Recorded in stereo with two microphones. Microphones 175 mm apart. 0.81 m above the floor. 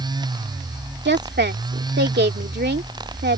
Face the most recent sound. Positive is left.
turn(degrees=-75)  # may be behind; listen again after turning